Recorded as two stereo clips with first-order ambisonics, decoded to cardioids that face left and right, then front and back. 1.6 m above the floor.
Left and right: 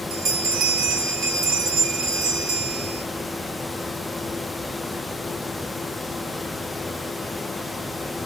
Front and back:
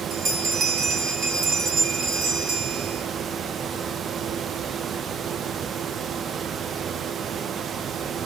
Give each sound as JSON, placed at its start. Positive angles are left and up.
{"t": 0.1, "sound": "a bell", "azimuth_deg": -130, "distance_m": 1.0}